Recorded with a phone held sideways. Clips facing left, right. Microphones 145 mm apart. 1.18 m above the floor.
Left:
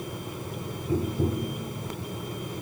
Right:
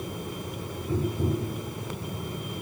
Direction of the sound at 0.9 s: 20° left (ahead or behind).